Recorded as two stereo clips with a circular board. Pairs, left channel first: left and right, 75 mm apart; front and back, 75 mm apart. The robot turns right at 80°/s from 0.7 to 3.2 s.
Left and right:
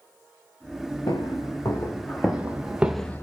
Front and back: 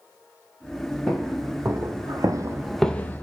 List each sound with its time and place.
1.1 s footsteps: 80° left, 1.8 m; by 3.2 s 50° left, 0.6 m